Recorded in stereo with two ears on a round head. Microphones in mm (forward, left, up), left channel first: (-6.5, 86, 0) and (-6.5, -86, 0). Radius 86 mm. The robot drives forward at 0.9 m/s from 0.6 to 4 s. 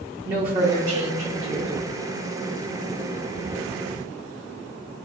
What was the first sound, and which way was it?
A woman speaking, 30° right (ahead or behind).